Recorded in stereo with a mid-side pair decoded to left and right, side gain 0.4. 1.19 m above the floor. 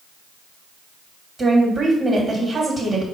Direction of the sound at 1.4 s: 40° right.